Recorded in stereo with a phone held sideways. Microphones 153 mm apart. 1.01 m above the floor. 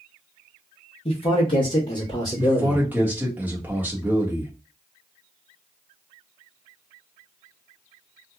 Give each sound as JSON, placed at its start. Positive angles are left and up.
{"t": 1.1, "sound": "a man speaking", "side_deg": 40, "distance_m": 1.0}
{"t": 2.4, "sound": "a man speaking", "side_deg": -10, "distance_m": 1.2}